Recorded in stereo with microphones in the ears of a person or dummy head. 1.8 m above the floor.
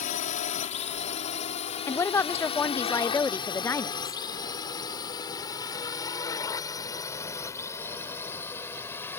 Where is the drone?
45° left (ahead or behind); by 9.2 s 15° left (ahead or behind).